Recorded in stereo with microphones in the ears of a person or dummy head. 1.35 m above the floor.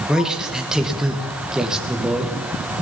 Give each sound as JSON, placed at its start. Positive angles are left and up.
{"t": 0.1, "sound": "a man speaking", "side_deg": -5, "distance_m": 1.2}